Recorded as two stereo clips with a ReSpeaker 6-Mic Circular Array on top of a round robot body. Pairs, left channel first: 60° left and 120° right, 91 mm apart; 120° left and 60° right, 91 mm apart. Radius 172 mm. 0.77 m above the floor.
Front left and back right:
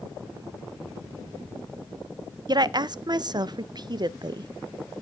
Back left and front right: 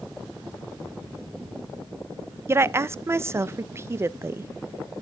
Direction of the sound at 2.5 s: 110° right.